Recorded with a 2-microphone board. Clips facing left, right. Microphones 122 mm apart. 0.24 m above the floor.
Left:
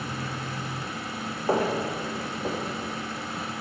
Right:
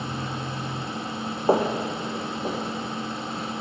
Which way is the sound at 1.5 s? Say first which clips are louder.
Right 3 dB; 25° right (ahead or behind).